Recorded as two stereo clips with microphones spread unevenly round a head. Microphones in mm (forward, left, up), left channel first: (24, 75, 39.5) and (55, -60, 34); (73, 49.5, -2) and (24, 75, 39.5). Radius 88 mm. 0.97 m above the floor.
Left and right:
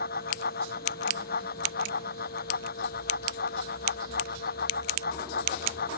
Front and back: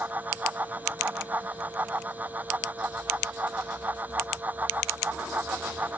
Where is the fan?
95° left.